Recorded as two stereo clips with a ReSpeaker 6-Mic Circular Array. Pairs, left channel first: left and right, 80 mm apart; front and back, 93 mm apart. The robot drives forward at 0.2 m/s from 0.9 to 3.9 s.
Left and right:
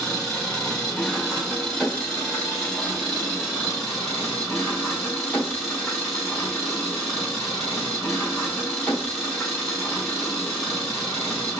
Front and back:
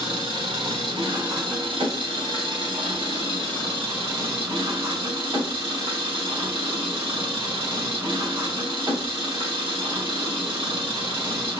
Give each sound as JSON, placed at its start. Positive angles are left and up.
{"t": 0.0, "sound": "an engine running", "azimuth_deg": 175, "distance_m": 1.7}